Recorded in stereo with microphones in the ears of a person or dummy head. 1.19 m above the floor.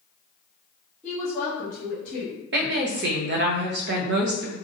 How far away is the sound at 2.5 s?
About 0.8 m.